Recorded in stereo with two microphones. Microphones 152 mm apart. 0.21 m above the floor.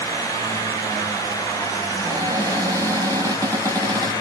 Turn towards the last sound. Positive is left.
turn(degrees=-25)  # may be behind; listen again after turning